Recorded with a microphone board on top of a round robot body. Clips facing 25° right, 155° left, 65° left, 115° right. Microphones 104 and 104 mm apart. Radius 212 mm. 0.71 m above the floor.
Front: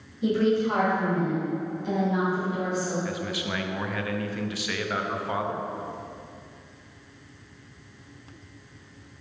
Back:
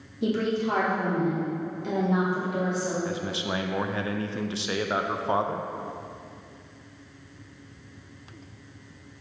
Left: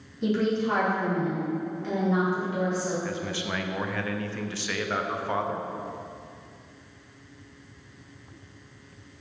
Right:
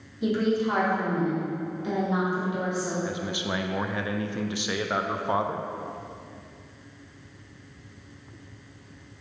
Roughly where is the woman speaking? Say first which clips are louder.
Front 3 dB, right 1 dB; behind.